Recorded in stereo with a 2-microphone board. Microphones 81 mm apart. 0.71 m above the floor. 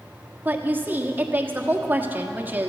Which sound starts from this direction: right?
A woman speaking, at 0.5 s.